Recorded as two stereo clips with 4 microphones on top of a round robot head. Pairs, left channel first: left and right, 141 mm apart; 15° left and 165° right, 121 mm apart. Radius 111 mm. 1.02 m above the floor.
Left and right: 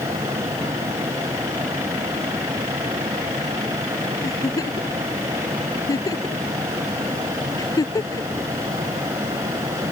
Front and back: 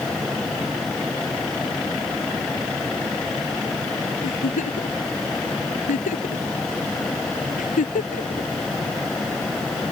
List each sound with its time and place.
4.2 s a giggle: 25° left